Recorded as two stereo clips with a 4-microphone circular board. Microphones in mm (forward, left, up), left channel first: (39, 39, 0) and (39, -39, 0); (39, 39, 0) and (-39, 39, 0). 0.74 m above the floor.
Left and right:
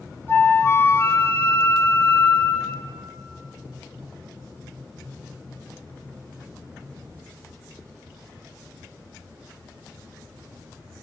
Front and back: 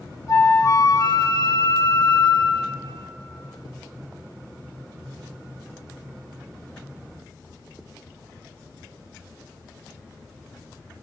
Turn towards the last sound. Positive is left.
turn(degrees=35)